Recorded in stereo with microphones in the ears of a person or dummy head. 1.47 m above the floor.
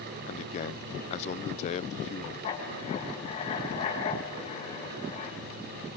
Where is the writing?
35° left (ahead or behind), 6 m.